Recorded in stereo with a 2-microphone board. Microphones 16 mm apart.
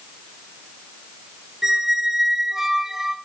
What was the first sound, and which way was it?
A squeak, 30° right (ahead or behind).